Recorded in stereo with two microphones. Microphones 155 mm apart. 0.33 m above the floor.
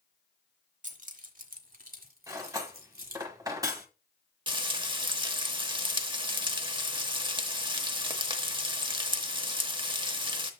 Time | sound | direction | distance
0.8 | keys jangling | 50° right (ahead or behind) | 0.9 m
2.3 | cutlery clinking | 25° right (ahead or behind) | 1.1 m
4.5 | frying | 30° right (ahead or behind) | 0.9 m